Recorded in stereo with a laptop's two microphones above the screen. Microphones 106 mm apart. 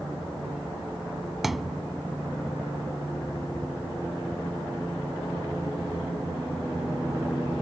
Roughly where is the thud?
Centre.